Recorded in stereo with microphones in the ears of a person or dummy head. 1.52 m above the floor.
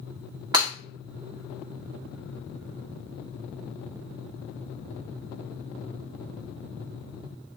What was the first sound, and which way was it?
Breaking glass, 25° right (ahead or behind).